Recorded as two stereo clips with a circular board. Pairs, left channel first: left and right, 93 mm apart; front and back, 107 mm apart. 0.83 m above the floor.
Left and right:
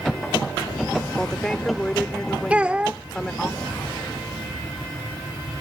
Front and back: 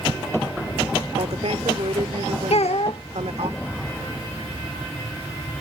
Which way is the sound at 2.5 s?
15° right.